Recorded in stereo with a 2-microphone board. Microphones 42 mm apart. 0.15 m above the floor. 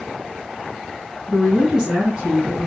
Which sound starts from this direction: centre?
A woman speaking, at 1.3 s.